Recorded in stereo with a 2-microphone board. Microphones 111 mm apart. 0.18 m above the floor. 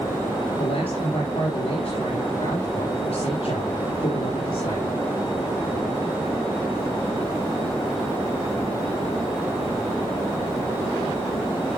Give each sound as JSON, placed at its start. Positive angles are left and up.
{"t": 0.6, "sound": "a man speaking", "side_deg": 70, "distance_m": 4.0}